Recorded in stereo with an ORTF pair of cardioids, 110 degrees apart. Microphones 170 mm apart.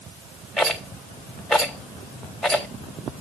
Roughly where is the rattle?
Ahead.